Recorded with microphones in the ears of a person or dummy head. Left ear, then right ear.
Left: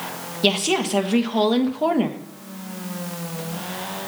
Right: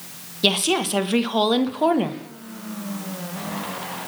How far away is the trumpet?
No trumpet in this recording.